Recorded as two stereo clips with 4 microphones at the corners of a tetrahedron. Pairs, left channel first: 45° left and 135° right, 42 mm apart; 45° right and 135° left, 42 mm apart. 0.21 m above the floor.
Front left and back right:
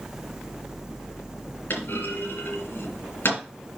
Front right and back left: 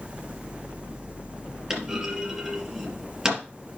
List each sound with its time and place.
1.7 s a clunk: 70° left, 4 m